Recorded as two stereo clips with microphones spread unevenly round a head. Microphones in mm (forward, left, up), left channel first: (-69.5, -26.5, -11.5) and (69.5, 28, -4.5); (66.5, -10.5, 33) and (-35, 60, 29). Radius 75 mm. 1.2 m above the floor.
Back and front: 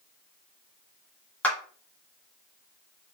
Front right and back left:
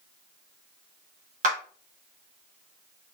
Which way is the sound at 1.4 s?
120° left.